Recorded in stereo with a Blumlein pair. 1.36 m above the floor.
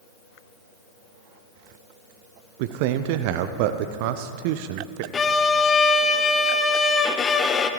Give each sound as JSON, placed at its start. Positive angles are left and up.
{"t": 2.6, "sound": "a man speaking", "azimuth_deg": -45, "distance_m": 0.5}
{"t": 5.1, "sound": "a violin", "azimuth_deg": 20, "distance_m": 0.7}